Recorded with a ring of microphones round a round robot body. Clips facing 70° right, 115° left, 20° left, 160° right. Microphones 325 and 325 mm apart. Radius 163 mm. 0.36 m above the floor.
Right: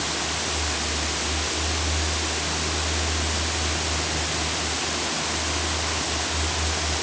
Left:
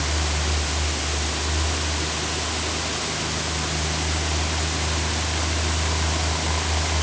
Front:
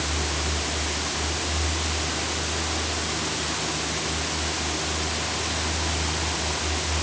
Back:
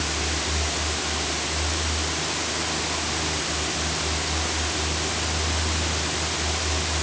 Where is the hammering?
No hammering in this recording.